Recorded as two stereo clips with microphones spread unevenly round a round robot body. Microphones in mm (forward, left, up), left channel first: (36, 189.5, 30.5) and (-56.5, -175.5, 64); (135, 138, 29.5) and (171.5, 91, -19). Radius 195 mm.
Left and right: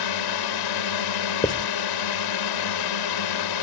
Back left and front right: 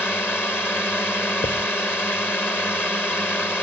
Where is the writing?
155° left.